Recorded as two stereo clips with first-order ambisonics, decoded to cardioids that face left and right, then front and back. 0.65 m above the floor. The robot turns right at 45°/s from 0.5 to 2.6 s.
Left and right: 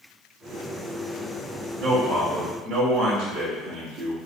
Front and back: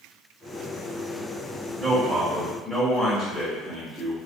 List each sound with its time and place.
1.8 s a man speaking: 110° right, 1.2 m; by 4.2 s 75° right, 1.2 m